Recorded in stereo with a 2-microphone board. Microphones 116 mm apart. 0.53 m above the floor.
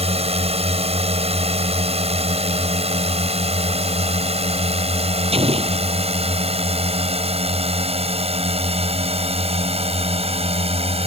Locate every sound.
0.0 s a drone: 60° right (ahead or behind)
5.3 s an explosion: 60° right (ahead or behind)